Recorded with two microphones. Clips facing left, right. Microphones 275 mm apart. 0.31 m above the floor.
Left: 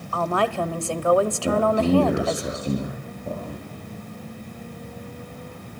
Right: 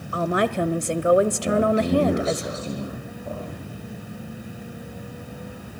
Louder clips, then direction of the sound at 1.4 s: Even; 15° left (ahead or behind).